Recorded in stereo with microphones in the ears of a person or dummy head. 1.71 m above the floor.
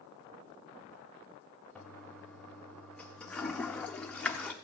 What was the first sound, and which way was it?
A toilet flushing, 10° left (ahead or behind).